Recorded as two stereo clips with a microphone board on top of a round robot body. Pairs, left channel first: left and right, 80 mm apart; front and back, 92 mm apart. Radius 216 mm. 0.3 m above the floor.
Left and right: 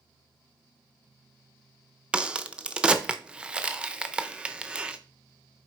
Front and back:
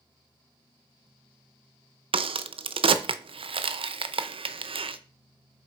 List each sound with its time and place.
2.1 s a crack: 170° right, 0.6 m